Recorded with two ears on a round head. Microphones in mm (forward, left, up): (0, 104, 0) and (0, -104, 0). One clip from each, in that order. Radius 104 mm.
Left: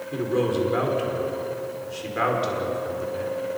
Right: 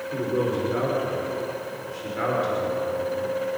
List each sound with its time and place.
0.1 s a man speaking: 35° left (ahead or behind), 5.5 m